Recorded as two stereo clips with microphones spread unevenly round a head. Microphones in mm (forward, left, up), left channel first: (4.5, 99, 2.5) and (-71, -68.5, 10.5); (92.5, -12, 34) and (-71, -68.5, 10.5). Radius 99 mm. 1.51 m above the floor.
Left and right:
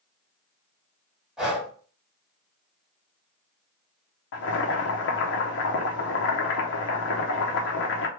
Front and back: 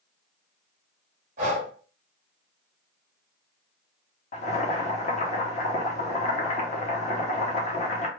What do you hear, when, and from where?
1.4 s breathing: 165° left, 1.5 m
4.3 s boiling: 75° left, 0.8 m